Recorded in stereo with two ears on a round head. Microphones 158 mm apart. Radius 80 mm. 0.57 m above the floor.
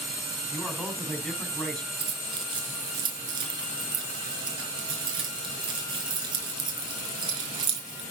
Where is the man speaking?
5° left (ahead or behind), 4 m.